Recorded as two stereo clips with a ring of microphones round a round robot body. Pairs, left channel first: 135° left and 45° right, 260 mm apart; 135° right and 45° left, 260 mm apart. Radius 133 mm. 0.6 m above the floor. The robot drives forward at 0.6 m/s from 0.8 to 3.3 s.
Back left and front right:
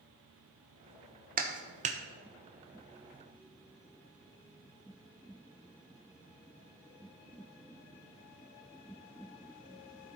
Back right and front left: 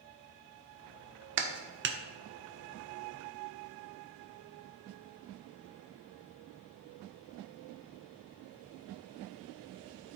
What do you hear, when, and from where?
1.4 s a clap: 10° left, 1.2 m; by 2.0 s 15° left, 0.9 m